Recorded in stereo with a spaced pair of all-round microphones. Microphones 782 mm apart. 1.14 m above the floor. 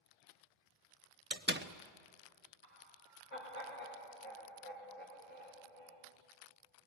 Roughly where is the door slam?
Centre.